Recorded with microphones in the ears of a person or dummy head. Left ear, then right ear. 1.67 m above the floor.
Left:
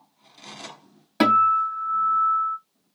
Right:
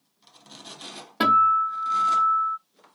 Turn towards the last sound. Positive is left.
turn(degrees=35)  # may be behind; listen again after turning